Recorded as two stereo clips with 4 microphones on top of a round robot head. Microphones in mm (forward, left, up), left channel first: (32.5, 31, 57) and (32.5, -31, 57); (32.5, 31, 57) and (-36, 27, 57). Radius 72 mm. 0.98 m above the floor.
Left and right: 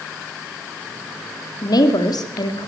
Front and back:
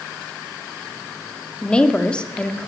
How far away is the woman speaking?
About 2.5 m.